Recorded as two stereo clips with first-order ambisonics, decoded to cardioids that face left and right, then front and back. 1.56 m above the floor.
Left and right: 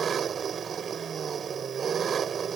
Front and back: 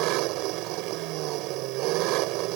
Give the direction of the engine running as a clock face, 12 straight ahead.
5 o'clock.